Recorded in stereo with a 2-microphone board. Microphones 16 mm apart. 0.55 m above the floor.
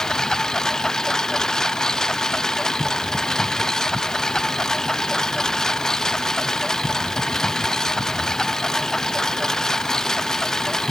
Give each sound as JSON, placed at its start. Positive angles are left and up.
{"t": 0.0, "sound": "a lawn mower", "side_deg": 35}